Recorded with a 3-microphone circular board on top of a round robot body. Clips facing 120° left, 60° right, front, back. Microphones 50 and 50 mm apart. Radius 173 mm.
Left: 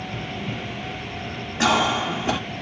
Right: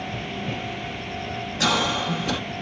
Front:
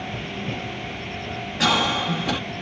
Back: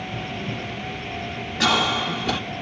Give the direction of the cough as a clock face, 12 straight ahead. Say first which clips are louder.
Left 3 dB, even; 9 o'clock.